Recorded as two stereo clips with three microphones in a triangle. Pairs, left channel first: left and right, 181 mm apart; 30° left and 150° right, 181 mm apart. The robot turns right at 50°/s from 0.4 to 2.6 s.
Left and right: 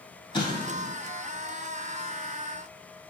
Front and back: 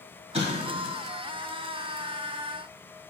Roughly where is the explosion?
Behind left.